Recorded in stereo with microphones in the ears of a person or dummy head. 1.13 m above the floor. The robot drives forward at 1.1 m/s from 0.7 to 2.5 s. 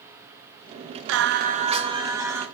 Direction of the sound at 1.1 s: 75° right (ahead or behind).